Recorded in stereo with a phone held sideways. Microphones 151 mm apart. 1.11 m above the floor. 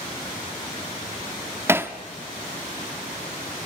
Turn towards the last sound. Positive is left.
turn(degrees=-15)  # may be behind; listen again after turning